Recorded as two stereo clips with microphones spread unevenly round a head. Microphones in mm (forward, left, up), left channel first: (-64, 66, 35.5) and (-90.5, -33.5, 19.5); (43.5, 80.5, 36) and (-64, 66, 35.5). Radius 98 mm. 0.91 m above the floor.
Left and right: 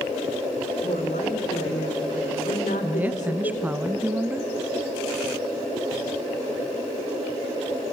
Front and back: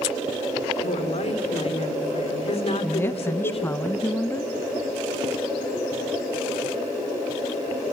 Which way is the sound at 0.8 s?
35° left.